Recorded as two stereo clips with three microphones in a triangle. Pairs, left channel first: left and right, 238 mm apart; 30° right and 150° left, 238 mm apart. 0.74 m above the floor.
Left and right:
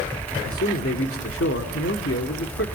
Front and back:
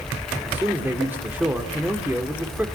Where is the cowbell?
No cowbell in this recording.